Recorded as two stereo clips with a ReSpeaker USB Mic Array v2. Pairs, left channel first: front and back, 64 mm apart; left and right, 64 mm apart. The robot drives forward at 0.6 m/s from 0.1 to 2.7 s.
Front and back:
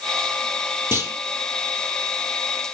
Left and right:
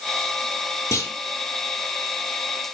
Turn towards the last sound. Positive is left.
turn(degrees=140)